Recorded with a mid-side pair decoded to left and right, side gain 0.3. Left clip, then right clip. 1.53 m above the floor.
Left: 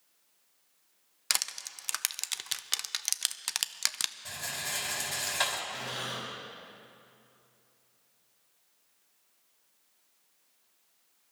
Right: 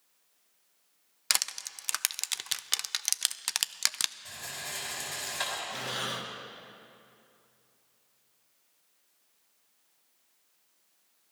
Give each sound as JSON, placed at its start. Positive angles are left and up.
{"t": 1.3, "sound": "crushing", "azimuth_deg": -25, "distance_m": 0.5}
{"t": 4.2, "sound": "a rattle", "azimuth_deg": 50, "distance_m": 5.0}
{"t": 5.7, "sound": "breathing", "azimuth_deg": -55, "distance_m": 2.0}